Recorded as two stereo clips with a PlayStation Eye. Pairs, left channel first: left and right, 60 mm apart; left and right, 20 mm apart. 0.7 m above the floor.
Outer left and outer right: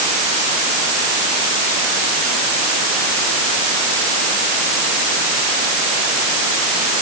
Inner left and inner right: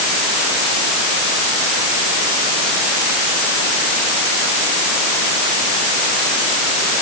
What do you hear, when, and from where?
Only background noise.